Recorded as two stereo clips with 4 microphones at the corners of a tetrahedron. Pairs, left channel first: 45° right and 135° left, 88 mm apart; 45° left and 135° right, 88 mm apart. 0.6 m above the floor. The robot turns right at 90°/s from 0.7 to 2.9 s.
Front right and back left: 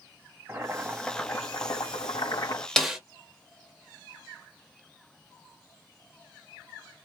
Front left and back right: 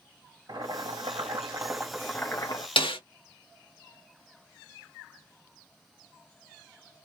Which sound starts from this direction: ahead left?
A snare drum, at 2.8 s.